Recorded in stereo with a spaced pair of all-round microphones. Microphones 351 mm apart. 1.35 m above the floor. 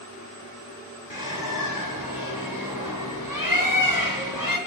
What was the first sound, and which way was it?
A bird, 65° left (ahead or behind).